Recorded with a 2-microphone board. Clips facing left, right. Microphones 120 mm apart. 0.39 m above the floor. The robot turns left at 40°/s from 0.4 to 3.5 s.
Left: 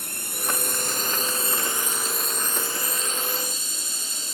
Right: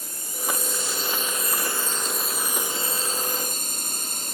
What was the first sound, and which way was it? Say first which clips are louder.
A drone: even; 70° left.